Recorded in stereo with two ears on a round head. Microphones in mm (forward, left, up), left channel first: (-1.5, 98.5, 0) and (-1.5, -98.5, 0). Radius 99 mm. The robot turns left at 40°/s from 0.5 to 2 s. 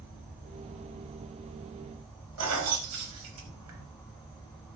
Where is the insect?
130° right, 1.2 m; by 4.8 s 170° left, 1.2 m.